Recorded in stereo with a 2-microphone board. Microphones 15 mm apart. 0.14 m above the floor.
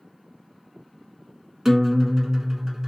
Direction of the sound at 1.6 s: 30° right (ahead or behind).